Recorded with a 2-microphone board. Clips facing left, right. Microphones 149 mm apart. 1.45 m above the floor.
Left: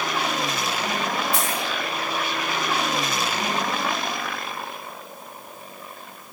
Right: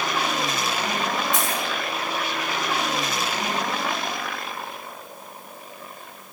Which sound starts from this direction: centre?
A dropped coin, at 1.3 s.